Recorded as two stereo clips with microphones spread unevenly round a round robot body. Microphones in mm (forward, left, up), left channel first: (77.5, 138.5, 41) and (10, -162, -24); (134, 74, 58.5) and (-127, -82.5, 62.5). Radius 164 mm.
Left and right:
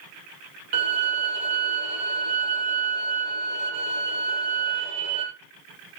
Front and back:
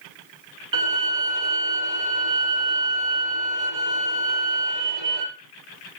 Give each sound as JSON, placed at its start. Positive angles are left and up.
{"t": 0.7, "sound": "a violin", "azimuth_deg": -120, "distance_m": 3.0}